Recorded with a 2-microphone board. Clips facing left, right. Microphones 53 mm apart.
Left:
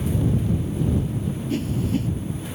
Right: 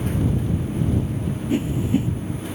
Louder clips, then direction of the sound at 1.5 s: Right 4 dB; 20° right (ahead or behind).